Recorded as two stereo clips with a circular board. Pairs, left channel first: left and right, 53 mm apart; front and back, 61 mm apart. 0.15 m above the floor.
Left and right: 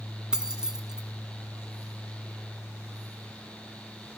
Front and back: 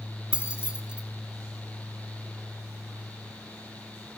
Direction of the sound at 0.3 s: 150° right.